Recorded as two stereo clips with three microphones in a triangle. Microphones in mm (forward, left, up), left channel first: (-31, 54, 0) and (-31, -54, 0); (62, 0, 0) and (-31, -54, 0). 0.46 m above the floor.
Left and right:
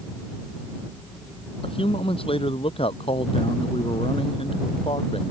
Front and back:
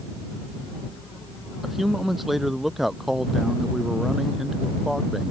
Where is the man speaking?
120° left.